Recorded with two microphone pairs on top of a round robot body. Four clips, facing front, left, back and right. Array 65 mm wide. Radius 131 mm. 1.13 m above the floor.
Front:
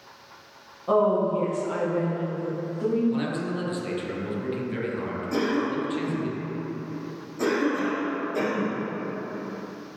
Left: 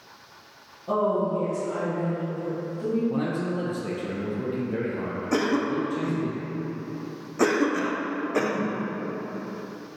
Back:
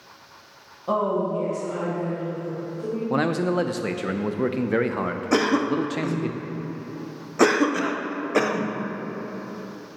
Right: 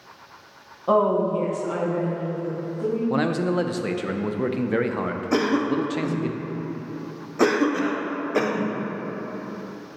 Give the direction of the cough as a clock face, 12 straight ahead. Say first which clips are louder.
Right 2 dB, back 4 dB; 6 o'clock.